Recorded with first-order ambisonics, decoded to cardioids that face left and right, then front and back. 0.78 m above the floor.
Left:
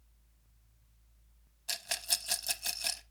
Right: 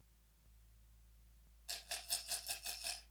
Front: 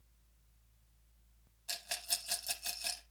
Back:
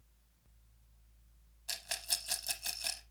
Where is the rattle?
100° left, 0.7 m.